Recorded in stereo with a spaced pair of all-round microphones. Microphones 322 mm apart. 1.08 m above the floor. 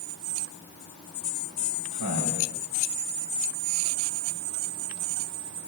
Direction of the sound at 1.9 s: 65° left (ahead or behind).